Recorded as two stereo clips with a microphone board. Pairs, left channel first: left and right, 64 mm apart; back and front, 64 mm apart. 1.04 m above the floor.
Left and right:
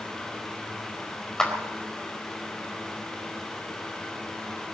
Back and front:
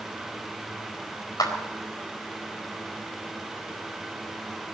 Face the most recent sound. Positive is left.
turn(degrees=170)